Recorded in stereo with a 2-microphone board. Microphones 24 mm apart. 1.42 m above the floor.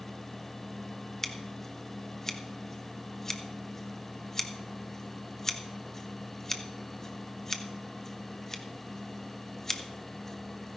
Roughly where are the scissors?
Centre.